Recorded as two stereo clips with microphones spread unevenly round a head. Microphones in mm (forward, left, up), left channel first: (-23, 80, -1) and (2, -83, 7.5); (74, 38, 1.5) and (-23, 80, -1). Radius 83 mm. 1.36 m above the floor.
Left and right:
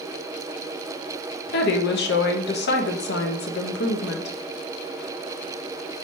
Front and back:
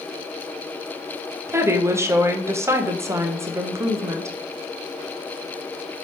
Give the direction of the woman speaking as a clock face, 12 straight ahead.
9 o'clock.